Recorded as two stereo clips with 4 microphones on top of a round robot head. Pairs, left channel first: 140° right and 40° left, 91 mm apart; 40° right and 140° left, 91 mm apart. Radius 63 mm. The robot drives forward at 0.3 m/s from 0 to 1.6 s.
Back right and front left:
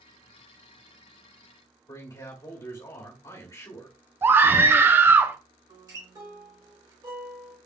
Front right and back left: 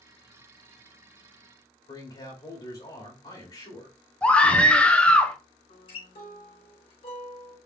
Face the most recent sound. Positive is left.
turn(degrees=-10)